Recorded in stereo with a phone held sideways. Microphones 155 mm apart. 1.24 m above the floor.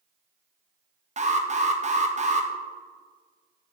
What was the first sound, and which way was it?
An alarm, 50° right (ahead or behind).